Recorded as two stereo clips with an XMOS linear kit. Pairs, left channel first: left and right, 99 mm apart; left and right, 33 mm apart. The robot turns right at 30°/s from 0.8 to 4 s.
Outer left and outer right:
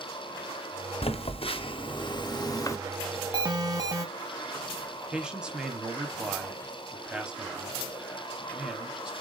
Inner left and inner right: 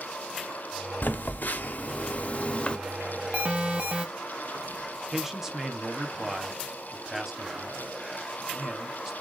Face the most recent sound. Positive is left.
turn(degrees=-10)  # may be behind; listen again after turning